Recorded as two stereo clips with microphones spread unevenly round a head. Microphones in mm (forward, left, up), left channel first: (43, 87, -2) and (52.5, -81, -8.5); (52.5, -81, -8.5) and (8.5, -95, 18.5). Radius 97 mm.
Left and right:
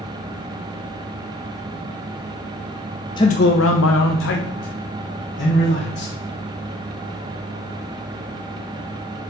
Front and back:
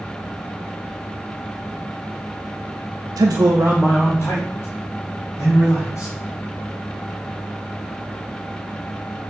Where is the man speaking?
165° left, 0.6 m; by 6.1 s 70° left, 3 m.